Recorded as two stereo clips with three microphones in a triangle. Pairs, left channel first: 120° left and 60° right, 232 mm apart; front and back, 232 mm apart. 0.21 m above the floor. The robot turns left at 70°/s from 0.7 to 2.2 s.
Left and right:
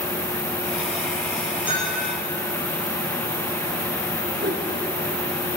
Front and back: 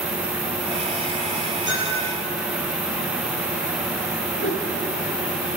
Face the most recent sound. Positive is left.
turn(degrees=-15)